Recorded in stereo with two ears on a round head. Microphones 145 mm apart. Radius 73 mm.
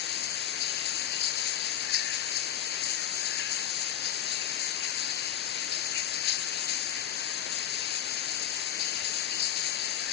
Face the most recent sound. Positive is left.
turn(degrees=65)  # may be behind; listen again after turning